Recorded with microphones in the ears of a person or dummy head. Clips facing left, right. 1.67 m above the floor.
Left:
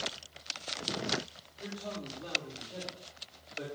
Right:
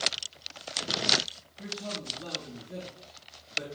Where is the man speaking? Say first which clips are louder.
Right 2 dB; 65° right (ahead or behind), 4 m.